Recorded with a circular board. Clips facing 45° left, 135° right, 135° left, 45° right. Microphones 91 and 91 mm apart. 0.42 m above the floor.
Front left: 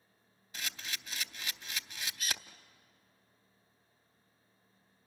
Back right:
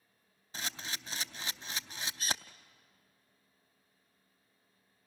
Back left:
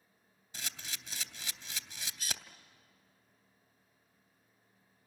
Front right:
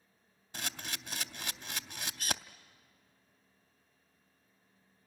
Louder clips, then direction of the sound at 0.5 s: Back right 2 dB, front right 5 dB; 80° right.